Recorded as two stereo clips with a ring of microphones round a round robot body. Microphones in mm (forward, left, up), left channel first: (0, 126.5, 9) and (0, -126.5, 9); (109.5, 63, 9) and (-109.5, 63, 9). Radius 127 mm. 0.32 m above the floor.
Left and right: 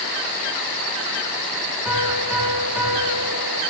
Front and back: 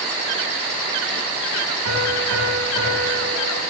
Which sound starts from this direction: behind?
A piano, at 1.9 s.